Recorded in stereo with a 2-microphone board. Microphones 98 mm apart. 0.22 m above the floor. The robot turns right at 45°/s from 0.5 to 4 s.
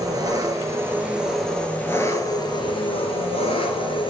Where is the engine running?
40° right, 1.9 m; by 4.1 s 115° left, 1.9 m.